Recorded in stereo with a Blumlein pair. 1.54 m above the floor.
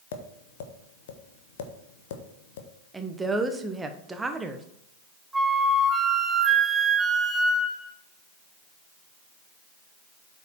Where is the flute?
10° right, 1.0 m.